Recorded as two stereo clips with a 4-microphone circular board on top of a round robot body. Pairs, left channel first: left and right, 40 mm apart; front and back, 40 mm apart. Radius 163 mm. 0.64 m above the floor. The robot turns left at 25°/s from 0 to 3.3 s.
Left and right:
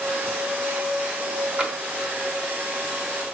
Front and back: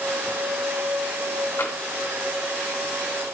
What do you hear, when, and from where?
1.6 s tapping: 25° right, 1.6 m; by 1.8 s 30° right, 1.6 m